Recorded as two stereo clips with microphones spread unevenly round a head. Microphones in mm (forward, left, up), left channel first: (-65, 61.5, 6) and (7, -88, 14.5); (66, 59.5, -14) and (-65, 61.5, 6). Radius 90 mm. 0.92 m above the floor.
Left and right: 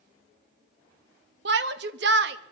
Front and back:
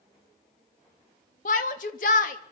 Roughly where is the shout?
Ahead right.